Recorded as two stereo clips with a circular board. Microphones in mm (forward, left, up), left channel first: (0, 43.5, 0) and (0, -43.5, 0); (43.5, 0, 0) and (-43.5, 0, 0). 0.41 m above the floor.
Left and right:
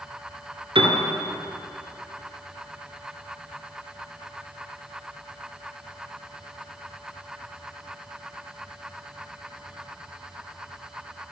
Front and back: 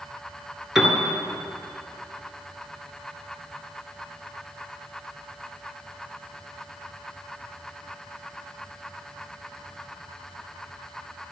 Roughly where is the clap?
No clap in this recording.